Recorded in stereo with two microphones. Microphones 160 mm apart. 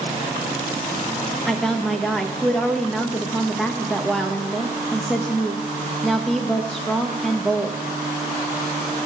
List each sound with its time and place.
1.5 s a woman speaking: centre (ahead or behind), 1.0 m